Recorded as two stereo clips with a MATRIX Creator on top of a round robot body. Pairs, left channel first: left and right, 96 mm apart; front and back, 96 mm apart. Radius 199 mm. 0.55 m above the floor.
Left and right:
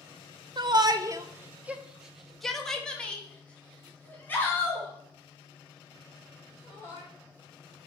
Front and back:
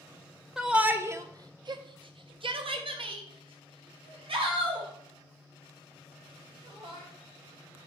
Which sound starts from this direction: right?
A shout, at 0.6 s.